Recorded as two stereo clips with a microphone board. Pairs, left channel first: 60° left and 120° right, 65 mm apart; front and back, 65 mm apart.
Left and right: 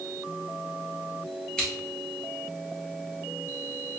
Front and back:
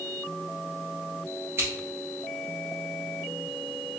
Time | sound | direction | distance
1.6 | scissors | 135° left | 1.8 m